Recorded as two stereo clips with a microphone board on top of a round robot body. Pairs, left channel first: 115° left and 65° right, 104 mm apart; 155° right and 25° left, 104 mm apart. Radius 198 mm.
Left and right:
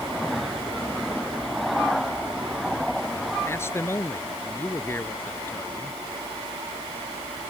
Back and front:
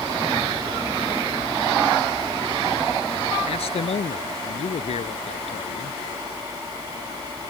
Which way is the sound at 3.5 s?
Straight behind.